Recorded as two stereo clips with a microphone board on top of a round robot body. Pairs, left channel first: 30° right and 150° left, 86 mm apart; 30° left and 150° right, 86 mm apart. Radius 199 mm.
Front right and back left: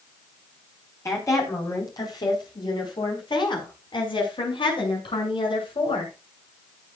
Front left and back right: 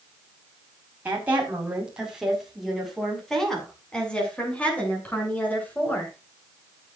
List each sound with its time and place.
1.1 s a woman speaking: 80° right, 4.5 m; by 6.1 s 40° right, 8.5 m